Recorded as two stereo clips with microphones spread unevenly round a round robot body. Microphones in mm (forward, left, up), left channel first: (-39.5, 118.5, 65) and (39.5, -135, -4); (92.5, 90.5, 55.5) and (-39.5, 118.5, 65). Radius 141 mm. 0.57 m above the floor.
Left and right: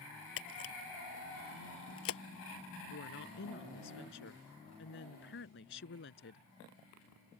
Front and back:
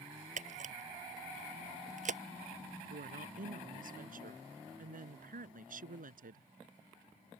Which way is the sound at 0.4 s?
145° left.